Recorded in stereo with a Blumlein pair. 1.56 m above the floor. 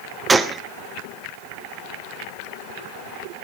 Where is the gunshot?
10° right, 1.2 m.